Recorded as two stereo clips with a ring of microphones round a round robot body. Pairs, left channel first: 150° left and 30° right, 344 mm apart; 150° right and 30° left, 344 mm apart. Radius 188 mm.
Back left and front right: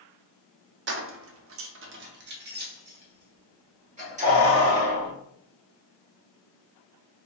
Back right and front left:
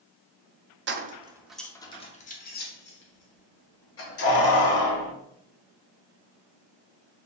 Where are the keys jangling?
Straight ahead, 0.5 m; by 5.1 s 100° right, 2 m.